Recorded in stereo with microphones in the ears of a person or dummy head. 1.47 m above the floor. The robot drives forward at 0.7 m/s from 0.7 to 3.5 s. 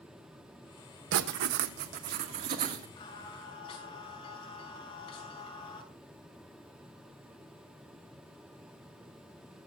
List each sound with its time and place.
1.1 s writing: 70° right (ahead or behind), 1.2 m; by 2.9 s 40° right (ahead or behind), 1.9 m
3.0 s singing: 25° left (ahead or behind), 5 m; by 5.8 s 30° left (ahead or behind), 4.5 m